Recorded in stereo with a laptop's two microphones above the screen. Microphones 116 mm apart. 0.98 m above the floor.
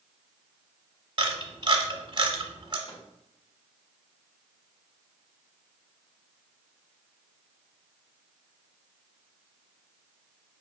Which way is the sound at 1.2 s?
45° right (ahead or behind).